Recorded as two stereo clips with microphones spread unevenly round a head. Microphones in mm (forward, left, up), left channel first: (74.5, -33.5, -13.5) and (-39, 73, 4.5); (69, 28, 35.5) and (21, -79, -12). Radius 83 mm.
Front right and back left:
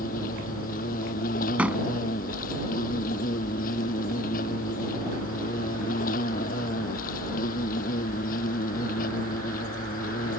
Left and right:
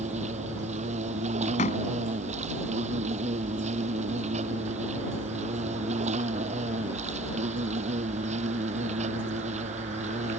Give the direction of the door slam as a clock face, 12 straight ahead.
10 o'clock.